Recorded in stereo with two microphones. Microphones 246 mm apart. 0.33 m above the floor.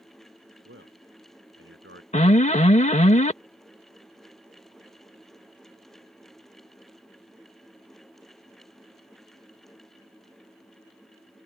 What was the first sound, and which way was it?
A man speaking, 55° right (ahead or behind).